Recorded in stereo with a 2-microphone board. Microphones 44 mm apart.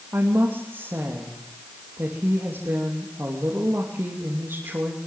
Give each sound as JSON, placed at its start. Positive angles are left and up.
{"t": 0.1, "sound": "a woman speaking", "side_deg": -65, "distance_m": 3.0}